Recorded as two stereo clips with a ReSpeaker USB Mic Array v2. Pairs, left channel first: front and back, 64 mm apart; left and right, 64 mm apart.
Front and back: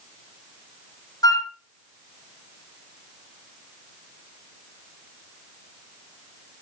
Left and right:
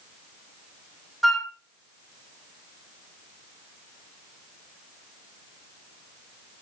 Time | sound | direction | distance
1.2 | a flute | straight ahead | 1.3 m